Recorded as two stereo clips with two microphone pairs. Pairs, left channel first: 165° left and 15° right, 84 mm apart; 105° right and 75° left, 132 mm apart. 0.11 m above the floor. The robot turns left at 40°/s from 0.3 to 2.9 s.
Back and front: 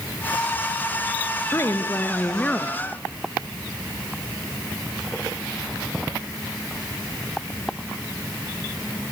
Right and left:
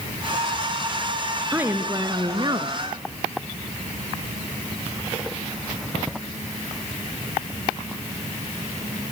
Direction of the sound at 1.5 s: 140° left.